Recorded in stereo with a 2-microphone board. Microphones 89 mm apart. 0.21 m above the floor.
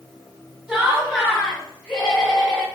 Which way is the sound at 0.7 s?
5° right (ahead or behind).